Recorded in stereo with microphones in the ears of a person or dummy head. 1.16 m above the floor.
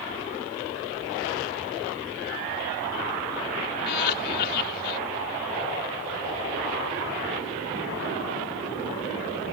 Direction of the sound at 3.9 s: 55° left (ahead or behind).